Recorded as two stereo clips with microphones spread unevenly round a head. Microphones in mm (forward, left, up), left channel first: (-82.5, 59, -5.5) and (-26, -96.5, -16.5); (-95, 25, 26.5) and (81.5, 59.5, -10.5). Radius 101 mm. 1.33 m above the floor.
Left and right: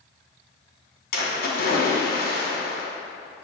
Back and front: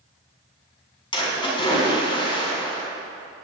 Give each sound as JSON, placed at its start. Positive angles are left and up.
{"t": 1.1, "sound": "a splash", "azimuth_deg": 130, "distance_m": 5.0}